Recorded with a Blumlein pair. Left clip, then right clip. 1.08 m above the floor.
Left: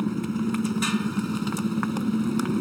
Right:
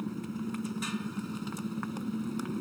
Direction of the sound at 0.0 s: 65° left.